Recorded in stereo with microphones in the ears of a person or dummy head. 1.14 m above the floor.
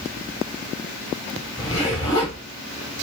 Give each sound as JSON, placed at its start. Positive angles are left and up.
{"t": 1.6, "sound": "a zipper", "side_deg": 25, "distance_m": 1.1}